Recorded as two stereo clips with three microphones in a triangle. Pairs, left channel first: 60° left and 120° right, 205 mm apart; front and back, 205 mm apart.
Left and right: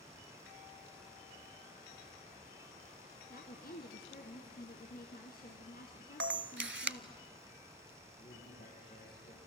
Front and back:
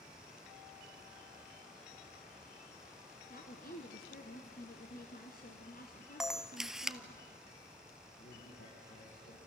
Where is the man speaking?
20° left, 7.5 m.